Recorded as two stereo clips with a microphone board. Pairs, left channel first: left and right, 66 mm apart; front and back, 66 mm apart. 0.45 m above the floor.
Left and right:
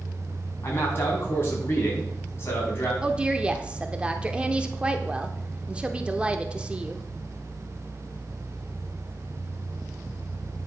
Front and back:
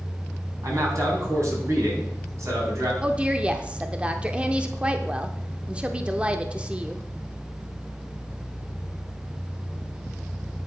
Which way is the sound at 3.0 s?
130° right.